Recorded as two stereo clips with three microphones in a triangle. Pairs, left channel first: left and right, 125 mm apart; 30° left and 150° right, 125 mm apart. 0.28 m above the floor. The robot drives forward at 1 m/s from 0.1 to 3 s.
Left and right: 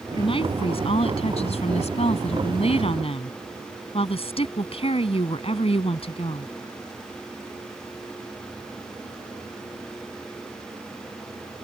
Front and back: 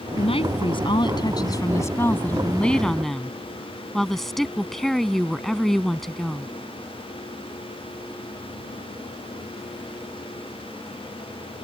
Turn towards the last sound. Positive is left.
turn(degrees=115)